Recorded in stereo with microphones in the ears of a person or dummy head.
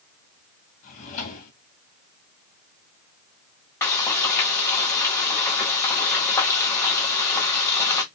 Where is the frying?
15° left (ahead or behind), 1.0 m.